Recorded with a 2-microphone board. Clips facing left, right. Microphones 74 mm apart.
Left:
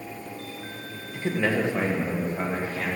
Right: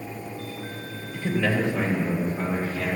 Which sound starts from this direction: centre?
A man speaking, at 1.1 s.